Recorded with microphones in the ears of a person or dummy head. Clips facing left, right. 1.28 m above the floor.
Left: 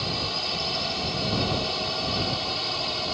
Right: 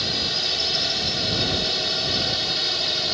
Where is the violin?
No violin in this recording.